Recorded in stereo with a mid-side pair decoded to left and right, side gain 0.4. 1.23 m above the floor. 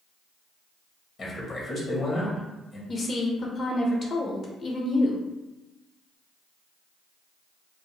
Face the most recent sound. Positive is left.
turn(degrees=50)